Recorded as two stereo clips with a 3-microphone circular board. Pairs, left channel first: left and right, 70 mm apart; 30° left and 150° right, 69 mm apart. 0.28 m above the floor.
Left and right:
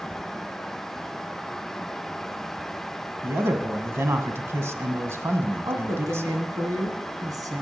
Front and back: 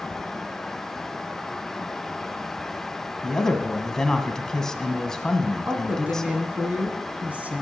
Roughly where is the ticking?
No ticking in this recording.